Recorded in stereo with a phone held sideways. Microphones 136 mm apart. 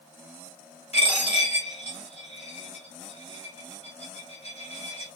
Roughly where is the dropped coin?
Left.